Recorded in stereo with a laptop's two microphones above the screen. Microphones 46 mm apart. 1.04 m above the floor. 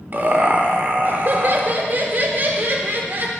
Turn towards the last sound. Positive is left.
turn(degrees=-40)  # may be behind; listen again after turning